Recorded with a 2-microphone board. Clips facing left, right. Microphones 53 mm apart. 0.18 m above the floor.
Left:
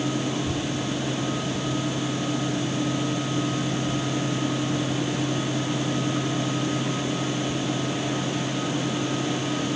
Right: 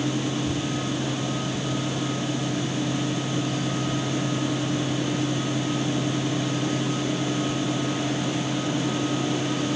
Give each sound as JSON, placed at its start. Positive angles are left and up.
{"t": 0.3, "sound": "a child speaking", "side_deg": 50}